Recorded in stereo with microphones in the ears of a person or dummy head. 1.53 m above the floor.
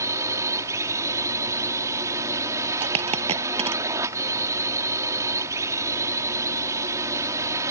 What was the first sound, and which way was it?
A drone, 15° right (ahead or behind).